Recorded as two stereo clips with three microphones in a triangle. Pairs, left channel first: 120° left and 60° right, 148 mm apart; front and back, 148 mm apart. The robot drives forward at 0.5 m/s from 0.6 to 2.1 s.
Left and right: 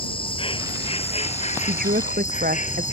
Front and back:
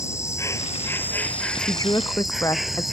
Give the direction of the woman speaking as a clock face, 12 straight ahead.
2 o'clock.